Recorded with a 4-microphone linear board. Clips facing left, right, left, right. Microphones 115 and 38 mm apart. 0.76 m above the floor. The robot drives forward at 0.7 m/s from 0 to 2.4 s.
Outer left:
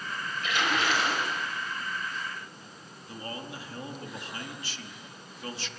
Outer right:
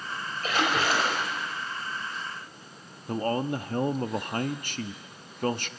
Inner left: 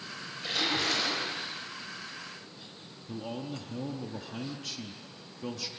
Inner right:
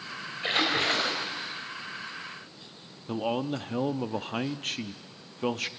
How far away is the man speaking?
About 0.9 m.